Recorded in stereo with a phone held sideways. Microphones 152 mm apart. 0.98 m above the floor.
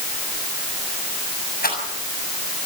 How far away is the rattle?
About 7 m.